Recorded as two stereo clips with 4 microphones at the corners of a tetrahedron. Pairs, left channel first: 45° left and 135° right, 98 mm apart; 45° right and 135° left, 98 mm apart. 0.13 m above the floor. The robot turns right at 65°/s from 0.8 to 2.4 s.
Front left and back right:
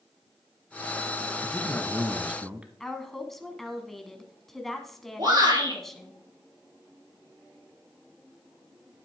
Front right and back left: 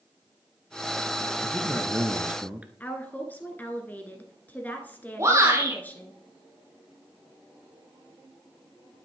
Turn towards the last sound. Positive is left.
turn(degrees=-170)